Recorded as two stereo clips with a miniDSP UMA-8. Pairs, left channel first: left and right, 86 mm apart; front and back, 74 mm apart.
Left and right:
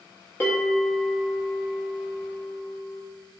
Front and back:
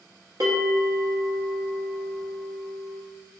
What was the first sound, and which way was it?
A bell, 150° left.